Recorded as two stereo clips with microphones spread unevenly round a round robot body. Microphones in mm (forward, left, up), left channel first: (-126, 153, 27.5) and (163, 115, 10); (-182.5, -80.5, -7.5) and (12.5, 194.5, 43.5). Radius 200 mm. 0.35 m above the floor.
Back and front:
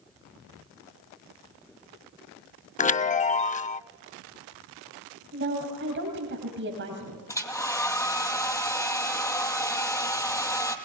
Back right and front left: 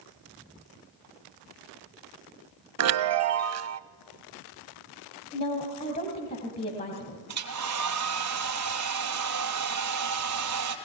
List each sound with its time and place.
2.8 s a chime: 105° left, 0.5 m
5.3 s a woman speaking: 60° right, 2.5 m
7.3 s a hair dryer: 95° left, 2 m